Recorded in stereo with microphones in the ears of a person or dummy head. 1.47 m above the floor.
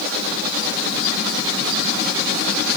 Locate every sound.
Only background noise.